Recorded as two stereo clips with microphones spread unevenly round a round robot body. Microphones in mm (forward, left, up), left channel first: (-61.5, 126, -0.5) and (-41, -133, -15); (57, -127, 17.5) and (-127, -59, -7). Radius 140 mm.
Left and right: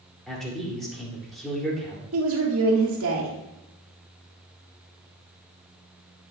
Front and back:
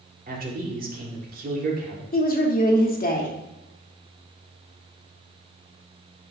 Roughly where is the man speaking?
Behind.